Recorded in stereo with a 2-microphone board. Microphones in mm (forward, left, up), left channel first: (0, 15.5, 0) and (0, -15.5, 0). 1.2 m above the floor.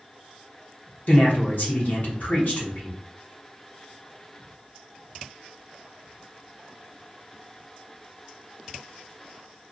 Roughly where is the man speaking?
Left.